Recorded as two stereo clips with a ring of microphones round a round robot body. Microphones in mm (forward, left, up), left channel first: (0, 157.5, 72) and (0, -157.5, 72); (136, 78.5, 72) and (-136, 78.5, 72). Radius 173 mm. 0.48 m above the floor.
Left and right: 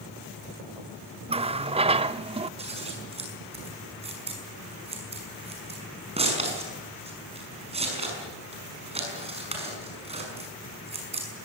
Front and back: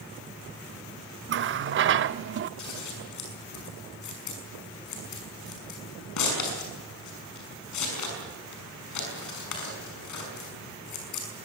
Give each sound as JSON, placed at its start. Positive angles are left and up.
{"t": 1.3, "sound": "a running tap", "azimuth_deg": -155, "distance_m": 0.7}
{"t": 2.6, "sound": "scissors", "azimuth_deg": -20, "distance_m": 6.0}